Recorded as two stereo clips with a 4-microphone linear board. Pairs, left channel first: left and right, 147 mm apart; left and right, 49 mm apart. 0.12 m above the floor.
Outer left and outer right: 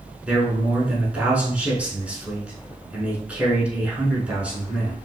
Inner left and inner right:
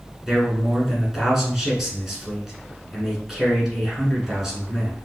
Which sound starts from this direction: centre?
A man speaking, at 0.3 s.